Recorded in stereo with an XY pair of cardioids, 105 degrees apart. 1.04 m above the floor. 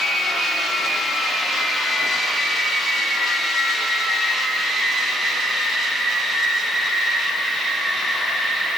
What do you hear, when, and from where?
Only background noise.